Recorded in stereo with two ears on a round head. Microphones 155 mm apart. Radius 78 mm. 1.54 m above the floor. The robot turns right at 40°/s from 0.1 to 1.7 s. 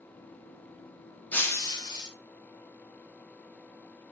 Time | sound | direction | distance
1.3 | breaking glass | 10° left (ahead or behind) | 2 m